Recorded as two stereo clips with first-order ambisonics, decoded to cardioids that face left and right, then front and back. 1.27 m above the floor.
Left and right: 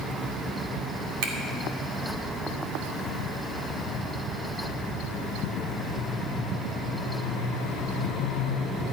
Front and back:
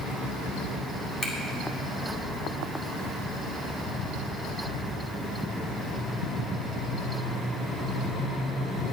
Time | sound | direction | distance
1.2 | a finger snap | 70° right | 2.5 m